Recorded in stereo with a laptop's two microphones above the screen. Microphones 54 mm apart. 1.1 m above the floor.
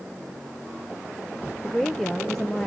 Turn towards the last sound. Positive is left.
turn(degrees=5)  # may be behind; listen again after turning